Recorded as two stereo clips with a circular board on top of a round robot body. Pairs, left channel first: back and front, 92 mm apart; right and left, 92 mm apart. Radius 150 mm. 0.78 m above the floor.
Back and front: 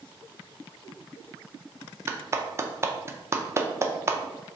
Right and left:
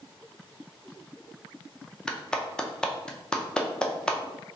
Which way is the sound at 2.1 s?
20° right.